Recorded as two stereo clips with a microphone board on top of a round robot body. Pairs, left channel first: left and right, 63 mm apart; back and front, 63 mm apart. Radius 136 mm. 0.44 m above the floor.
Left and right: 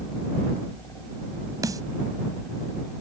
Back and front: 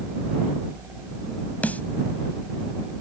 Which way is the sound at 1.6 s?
115° right.